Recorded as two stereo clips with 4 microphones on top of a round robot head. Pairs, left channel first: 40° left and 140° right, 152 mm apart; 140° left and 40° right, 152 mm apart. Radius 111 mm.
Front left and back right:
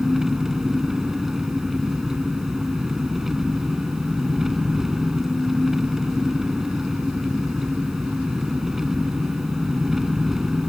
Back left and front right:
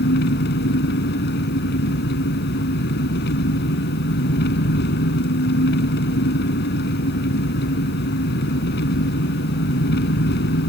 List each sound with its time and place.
0.0 s an engine running: 135° left